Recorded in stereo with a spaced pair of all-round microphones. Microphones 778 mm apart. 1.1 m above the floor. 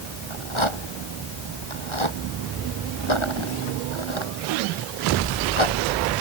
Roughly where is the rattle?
Left.